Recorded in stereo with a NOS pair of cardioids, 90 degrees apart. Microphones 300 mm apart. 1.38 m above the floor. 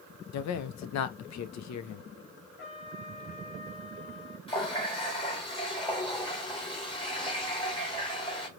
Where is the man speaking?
65° left, 0.8 m.